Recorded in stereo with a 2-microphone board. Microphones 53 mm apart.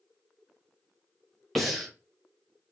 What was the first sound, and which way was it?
Breathing, centre (ahead or behind).